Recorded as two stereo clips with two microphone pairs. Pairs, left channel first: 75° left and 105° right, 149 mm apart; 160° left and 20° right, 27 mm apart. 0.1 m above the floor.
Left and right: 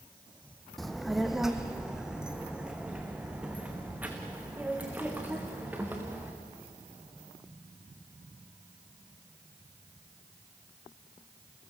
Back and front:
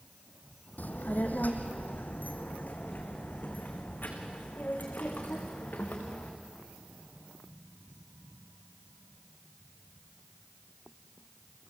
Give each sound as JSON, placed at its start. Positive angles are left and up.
{"t": 0.8, "sound": "a child speaking", "azimuth_deg": 160, "distance_m": 2.0}